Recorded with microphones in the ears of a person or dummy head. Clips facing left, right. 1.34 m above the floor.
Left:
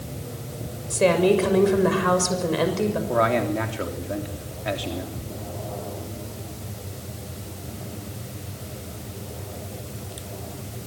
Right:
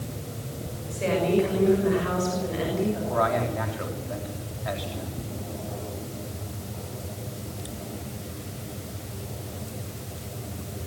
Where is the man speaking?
35° left (ahead or behind), 3.5 m.